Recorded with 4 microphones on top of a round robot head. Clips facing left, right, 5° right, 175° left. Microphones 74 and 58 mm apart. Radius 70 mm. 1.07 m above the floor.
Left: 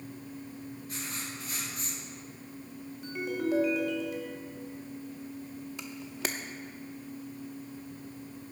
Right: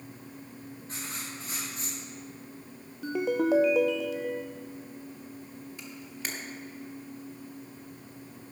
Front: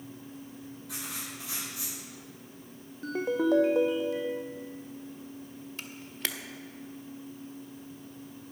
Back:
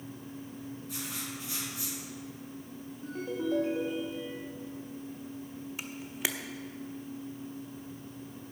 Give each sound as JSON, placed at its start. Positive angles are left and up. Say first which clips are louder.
{"t": 0.9, "sound": "writing", "louder": "right 2 dB, front 1 dB", "azimuth_deg": -25, "distance_m": 5.5}
{"t": 3.0, "sound": "a ringtone", "louder": "right 6 dB, front 7 dB", "azimuth_deg": -60, "distance_m": 0.6}
{"t": 5.8, "sound": "a camera shutter", "louder": "left 4 dB, back 2 dB", "azimuth_deg": 95, "distance_m": 0.7}